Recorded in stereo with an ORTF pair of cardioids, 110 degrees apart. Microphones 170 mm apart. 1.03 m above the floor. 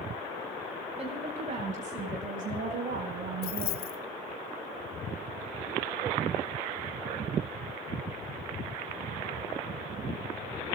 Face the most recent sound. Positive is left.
turn(degrees=65)